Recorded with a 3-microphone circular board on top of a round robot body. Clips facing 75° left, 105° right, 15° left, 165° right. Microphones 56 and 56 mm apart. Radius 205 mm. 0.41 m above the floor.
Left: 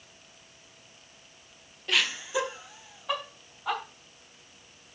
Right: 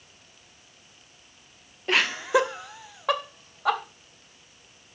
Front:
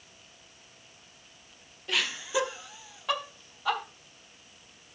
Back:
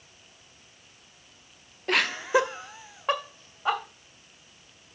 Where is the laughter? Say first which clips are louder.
Right 6 dB, back 7 dB; 150° right, 1.1 m; by 3.8 s 105° right, 3 m.